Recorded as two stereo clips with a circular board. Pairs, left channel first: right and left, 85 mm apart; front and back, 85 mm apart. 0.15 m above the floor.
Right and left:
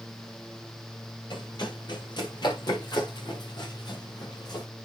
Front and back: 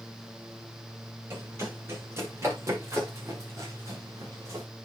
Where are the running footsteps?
120° right, 7.5 m; by 4.7 s 130° right, 5.5 m.